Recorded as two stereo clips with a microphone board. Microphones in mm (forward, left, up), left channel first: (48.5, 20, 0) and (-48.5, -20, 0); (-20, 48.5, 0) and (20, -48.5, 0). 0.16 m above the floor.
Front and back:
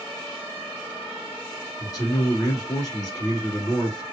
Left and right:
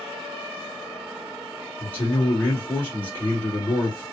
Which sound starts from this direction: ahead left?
A man speaking, at 1.8 s.